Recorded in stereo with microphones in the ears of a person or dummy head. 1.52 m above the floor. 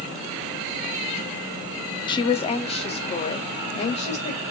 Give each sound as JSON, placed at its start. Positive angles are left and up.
{"t": 2.1, "sound": "a woman speaking", "side_deg": 30, "distance_m": 0.8}